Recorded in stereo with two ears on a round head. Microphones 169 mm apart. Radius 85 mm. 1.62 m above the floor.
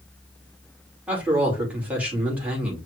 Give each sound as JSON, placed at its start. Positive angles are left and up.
{"t": 1.1, "sound": "a man speaking", "side_deg": -10, "distance_m": 2.5}